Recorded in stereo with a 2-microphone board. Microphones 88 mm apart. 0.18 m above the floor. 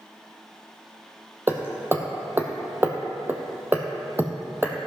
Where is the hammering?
25° right (ahead or behind), 1.3 m.